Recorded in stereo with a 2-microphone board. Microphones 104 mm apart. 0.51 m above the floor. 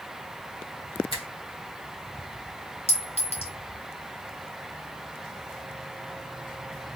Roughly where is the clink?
Left.